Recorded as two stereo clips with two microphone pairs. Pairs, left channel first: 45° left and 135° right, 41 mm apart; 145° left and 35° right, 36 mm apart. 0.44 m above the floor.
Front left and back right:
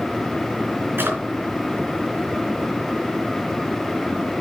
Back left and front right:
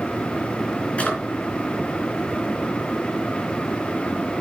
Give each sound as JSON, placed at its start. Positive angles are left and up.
{"t": 1.0, "sound": "a drawer", "azimuth_deg": -160, "distance_m": 3.5}